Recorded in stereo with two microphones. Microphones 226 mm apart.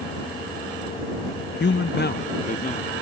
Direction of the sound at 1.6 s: 50° left (ahead or behind).